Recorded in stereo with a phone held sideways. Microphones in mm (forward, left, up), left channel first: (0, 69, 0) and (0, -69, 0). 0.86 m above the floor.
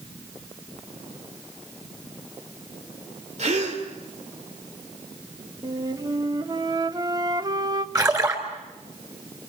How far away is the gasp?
About 3 m.